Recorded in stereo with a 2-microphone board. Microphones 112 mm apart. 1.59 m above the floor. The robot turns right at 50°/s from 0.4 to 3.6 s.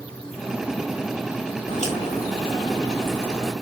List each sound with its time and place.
1.7 s a crack: 90° left, 3.5 m; by 3.5 s straight behind, 3.5 m